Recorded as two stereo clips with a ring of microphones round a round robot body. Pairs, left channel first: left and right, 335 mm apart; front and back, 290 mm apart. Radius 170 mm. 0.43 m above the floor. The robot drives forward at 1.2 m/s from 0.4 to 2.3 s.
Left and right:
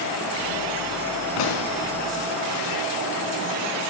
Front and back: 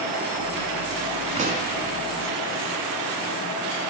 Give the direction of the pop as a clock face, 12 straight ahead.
8 o'clock.